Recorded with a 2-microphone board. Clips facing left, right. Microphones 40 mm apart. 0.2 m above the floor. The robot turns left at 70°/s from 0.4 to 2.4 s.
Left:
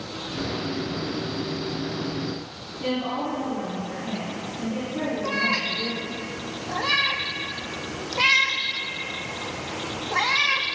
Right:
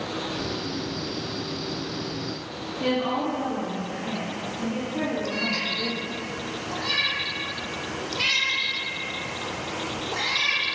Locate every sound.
2.8 s a woman speaking: 35° right (ahead or behind), 2.5 m
5.2 s a cat meowing: 55° left (ahead or behind), 1.2 m